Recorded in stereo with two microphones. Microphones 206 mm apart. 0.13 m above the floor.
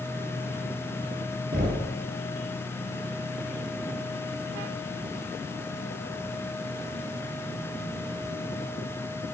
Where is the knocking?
45° right (ahead or behind), 1.3 m.